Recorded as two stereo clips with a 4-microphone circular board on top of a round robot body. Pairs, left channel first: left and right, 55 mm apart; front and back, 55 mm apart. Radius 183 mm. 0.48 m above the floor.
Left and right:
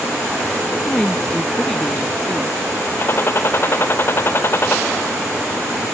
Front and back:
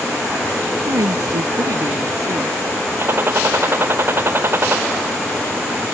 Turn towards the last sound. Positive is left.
turn(degrees=135)